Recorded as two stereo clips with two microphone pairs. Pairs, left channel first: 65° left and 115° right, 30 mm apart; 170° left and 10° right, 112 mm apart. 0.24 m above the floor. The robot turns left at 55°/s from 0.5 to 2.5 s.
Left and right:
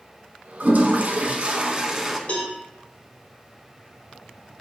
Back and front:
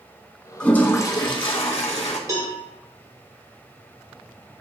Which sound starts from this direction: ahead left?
A cowbell, at 2.3 s.